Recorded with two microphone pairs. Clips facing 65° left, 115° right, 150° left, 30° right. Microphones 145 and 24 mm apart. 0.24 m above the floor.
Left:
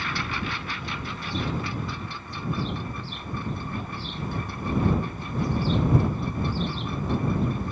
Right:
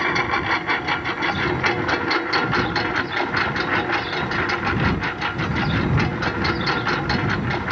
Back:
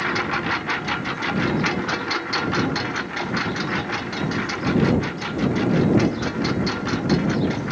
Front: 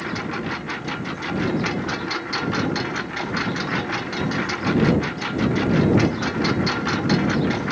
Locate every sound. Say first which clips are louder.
0.0 s a lawn mower: right 9 dB, back 4 dB; 145° right; by 7.7 s 105° right